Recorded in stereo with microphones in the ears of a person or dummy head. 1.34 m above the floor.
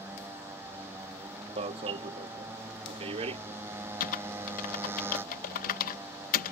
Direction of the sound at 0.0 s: 20° right (ahead or behind).